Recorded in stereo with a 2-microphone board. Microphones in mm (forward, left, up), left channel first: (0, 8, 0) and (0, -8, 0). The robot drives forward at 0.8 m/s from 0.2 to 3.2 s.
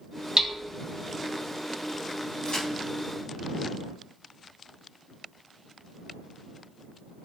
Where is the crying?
No crying in this recording.